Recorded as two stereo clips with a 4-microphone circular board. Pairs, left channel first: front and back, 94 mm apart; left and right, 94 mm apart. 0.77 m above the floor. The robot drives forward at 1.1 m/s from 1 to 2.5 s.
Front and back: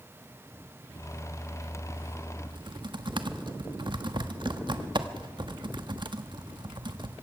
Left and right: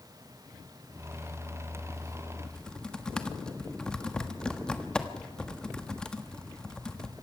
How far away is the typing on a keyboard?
About 1.3 m.